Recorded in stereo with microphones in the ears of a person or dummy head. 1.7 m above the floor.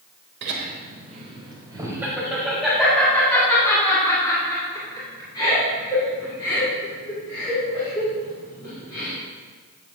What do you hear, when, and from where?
0.4 s laughter: 60° right (ahead or behind), 1.3 m; by 9.1 s 30° left (ahead or behind), 7 m